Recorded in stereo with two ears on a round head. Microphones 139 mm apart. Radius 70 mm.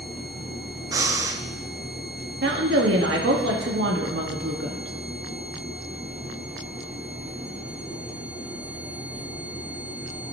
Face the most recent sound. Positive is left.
turn(degrees=-80)